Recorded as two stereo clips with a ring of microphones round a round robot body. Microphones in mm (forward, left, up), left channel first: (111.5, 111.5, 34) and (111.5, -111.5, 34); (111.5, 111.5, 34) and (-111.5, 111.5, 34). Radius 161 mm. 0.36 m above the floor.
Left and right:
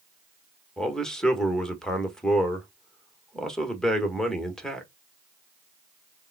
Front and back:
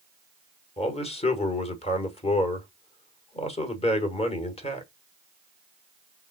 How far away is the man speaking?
About 1.4 m.